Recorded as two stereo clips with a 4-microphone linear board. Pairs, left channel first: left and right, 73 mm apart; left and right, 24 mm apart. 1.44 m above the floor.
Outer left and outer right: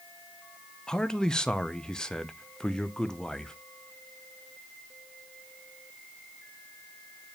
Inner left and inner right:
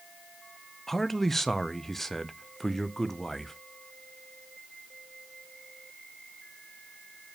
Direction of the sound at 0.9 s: 10° left (ahead or behind).